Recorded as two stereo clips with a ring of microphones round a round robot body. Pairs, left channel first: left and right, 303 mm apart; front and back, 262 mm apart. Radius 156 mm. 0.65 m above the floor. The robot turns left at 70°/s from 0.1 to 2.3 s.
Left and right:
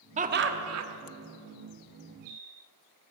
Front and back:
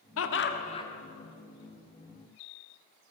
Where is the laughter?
25° right, 1.3 m; by 0.9 s 75° right, 1.3 m.